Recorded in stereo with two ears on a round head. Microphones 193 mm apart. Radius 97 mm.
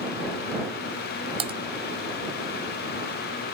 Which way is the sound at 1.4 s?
30° right (ahead or behind).